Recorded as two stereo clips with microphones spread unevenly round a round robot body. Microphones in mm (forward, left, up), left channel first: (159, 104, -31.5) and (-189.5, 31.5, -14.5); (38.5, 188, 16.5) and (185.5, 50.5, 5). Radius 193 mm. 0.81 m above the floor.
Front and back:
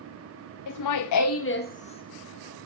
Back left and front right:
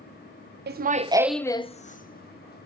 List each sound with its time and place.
0.7 s laughter: 20° right, 0.6 m; by 2.7 s 95° left, 1.3 m